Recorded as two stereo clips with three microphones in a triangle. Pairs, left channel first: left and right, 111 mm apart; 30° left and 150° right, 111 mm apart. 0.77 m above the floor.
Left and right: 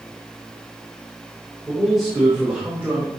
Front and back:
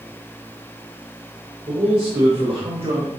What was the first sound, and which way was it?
A man speaking, straight behind.